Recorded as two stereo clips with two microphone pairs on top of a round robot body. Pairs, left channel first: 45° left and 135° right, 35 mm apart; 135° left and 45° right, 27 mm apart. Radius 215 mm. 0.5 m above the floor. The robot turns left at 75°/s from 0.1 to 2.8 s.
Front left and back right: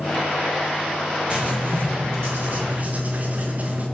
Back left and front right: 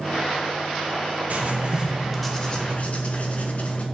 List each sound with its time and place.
1.3 s writing: 70° right, 1.3 m; by 3.9 s 175° left, 1.3 m